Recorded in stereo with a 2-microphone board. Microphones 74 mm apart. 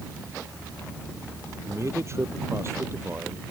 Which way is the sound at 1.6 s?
40° right (ahead or behind).